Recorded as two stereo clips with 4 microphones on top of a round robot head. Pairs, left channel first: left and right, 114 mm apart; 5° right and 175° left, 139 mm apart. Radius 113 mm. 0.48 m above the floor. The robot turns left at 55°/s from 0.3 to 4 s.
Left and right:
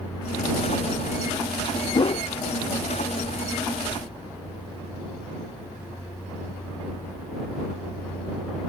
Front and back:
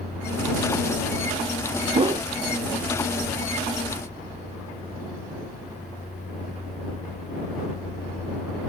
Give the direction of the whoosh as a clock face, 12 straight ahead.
7 o'clock.